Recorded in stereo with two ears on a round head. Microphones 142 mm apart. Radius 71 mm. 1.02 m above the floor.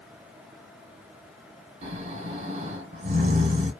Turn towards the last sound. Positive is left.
turn(degrees=-45)  # may be behind; listen again after turning